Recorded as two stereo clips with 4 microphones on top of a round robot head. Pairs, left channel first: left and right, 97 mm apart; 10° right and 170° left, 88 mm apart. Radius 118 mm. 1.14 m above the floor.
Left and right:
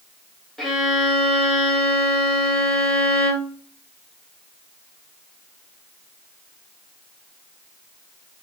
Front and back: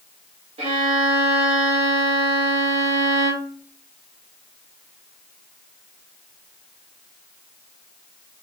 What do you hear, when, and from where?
0.6 s a violin: straight behind, 0.8 m